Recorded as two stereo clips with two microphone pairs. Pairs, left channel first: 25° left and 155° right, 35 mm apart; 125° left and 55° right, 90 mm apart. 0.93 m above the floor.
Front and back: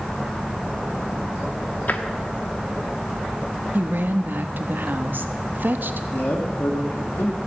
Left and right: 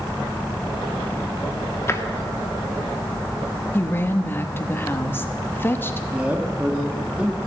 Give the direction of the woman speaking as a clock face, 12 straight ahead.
6 o'clock.